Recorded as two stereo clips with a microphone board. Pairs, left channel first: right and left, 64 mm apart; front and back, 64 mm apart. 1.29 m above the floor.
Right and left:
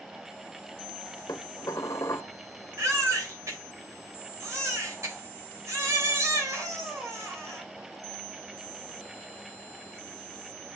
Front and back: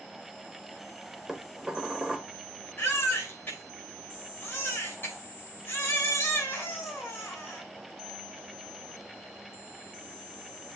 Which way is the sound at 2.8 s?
55° left.